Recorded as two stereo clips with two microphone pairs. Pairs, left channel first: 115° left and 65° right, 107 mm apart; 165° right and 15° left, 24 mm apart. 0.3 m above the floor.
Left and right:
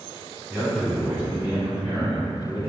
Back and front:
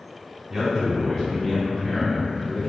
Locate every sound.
0.5 s a man speaking: 25° right, 1.1 m; by 2.7 s 150° right, 1.8 m